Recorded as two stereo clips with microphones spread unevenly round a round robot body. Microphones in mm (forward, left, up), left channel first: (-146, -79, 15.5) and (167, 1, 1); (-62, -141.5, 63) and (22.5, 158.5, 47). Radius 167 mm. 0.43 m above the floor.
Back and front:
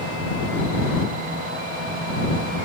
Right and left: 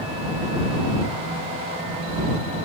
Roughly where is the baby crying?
No baby crying in this recording.